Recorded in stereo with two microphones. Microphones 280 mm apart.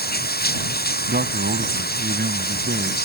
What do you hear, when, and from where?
0.0 s running water: 35° left (ahead or behind)
1.1 s a man speaking: 35° right (ahead or behind)